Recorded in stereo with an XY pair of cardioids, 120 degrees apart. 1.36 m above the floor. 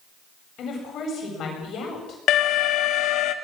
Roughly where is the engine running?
I don't hear an engine running.